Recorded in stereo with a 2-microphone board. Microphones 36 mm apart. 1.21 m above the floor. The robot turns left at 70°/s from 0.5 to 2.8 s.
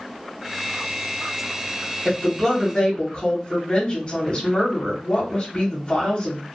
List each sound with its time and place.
2.0 s a woman speaking: 155° right, 1.1 m; by 6.4 s 155° left, 1.1 m